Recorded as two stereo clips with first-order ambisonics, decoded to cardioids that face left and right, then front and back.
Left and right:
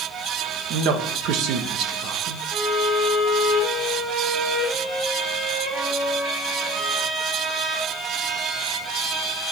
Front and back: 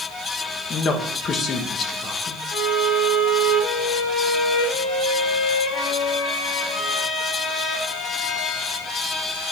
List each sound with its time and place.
0.7 s a man speaking: 60° right, 1.3 m
2.5 s a violin: 10° right, 6 m